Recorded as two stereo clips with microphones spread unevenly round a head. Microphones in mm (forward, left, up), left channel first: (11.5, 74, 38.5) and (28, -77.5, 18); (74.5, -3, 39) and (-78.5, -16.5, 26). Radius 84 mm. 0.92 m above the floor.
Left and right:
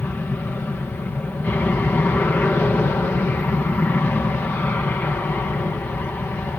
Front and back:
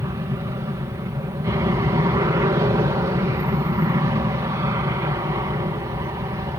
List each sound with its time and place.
0.0 s an aircraft: 170° left